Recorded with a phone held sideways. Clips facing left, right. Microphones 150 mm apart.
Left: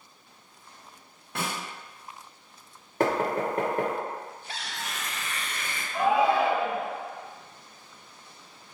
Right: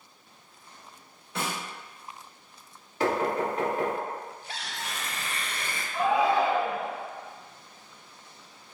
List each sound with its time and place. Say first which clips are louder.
1.4 s a snare drum: even; 60° left (ahead or behind), 2.0 m
3.0 s knocking: left 1 dB; 55° left (ahead or behind), 0.8 m
4.6 s tearing paper: even; 30° right (ahead or behind), 0.6 m
5.9 s a shout: left 1 dB; 20° left (ahead or behind), 1.6 m